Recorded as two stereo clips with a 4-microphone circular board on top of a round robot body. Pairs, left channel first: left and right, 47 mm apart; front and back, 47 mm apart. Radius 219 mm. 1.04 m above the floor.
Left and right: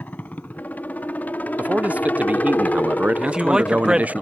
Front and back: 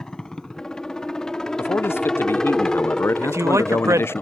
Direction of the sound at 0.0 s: 70° left.